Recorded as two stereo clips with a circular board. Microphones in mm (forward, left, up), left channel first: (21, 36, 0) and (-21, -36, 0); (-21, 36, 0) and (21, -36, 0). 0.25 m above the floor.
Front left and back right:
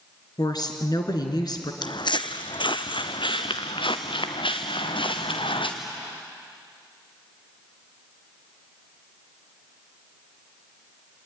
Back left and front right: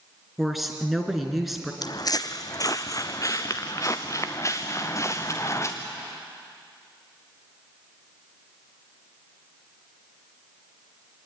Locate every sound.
0.4 s a woman speaking: 30° left, 3 m
1.8 s footsteps: 85° left, 0.8 m; by 5.7 s 65° left, 3 m